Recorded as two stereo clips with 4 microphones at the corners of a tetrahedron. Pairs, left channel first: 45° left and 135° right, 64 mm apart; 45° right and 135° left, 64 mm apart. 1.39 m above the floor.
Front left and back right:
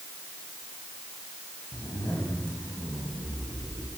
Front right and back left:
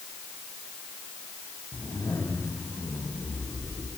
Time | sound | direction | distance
1.7 | a zipper | 10° right | 7.5 m